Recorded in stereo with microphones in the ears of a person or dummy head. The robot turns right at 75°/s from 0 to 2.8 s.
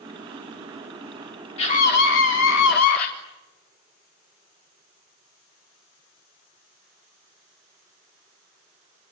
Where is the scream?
35° left, 4 m; by 3.1 s 130° left, 4 m.